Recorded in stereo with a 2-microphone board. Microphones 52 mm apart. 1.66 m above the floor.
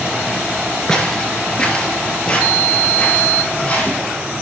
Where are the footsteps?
15° left (ahead or behind), 1.8 m; by 4.0 s 25° left (ahead or behind), 4 m.